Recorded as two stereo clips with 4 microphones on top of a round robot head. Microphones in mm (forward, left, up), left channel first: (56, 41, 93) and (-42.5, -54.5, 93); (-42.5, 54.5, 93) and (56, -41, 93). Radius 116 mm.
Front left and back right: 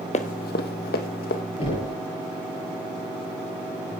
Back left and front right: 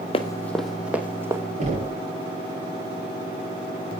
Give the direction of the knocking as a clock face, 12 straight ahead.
12 o'clock.